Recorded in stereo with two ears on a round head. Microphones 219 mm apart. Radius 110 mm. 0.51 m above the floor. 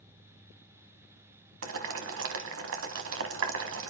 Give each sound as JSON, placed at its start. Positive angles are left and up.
{"t": 1.6, "sound": "boiling", "side_deg": -55, "distance_m": 1.4}